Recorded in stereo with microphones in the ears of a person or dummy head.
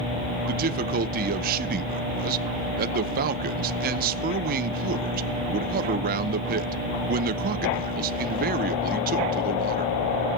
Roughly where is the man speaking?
Right.